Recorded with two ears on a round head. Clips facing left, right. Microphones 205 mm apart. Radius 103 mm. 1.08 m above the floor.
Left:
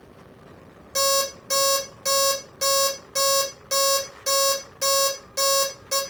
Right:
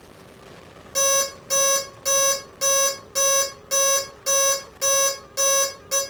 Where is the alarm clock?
Centre (ahead or behind), 2.5 m.